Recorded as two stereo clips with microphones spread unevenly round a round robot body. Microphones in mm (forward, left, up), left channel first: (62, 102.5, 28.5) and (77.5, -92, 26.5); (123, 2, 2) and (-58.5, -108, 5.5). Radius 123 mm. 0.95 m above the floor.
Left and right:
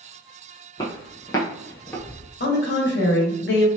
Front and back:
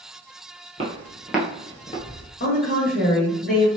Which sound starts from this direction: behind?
Footsteps, at 0.8 s.